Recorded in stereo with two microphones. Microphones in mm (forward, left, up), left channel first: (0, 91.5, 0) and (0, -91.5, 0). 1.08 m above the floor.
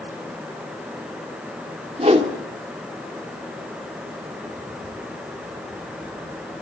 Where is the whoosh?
35° right (ahead or behind), 2 m.